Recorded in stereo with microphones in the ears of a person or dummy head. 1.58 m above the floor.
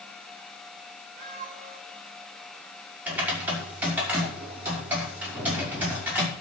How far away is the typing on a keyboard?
About 5.5 m.